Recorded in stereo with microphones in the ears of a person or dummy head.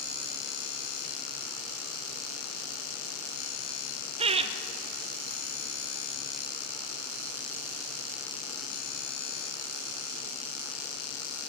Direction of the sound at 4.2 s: 30° right (ahead or behind).